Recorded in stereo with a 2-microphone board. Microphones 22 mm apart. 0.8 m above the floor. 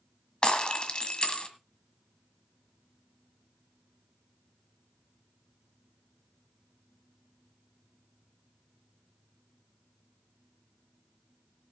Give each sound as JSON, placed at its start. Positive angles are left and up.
{"t": 0.4, "sound": "breaking glass", "side_deg": 35, "distance_m": 1.6}